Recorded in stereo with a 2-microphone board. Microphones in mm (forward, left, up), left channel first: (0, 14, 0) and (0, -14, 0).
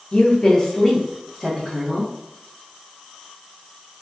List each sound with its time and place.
0.1 s a woman speaking: 35° left (ahead or behind), 0.7 m; by 2.1 s 20° right (ahead or behind), 1.3 m